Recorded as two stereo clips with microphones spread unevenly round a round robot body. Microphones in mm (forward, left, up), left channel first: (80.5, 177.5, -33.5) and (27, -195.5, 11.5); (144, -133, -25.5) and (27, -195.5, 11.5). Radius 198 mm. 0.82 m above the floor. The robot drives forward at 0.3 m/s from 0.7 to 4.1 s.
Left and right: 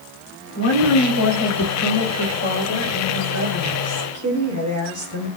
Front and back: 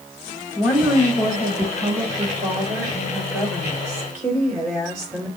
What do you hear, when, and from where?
0.6 s a woman speaking: 130° left, 2.5 m; by 5.3 s 145° left, 3.5 m